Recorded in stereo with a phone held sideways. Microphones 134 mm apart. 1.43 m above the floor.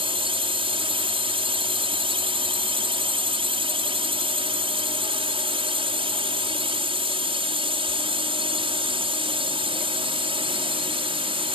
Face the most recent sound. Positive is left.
turn(degrees=-40)  # may be behind; listen again after turning